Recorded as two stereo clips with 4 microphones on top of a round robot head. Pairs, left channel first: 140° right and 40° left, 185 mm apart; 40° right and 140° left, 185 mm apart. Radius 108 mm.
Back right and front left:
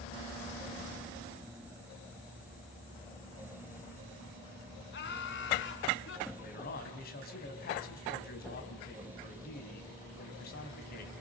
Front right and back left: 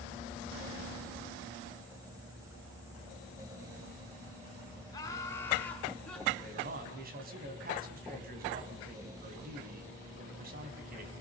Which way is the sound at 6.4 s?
Straight behind.